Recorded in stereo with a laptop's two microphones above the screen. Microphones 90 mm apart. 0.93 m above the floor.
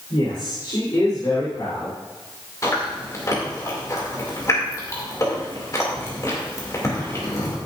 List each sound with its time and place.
0.1 s a man speaking: 60° left (ahead or behind), 3.5 m; by 2.0 s 45° left (ahead or behind), 3 m
2.6 s chewing: 40° left (ahead or behind), 2.5 m